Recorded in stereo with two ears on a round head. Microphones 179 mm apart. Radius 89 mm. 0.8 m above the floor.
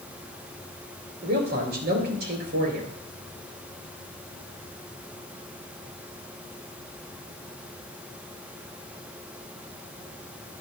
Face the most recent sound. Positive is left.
turn(degrees=-55)  # may be behind; listen again after turning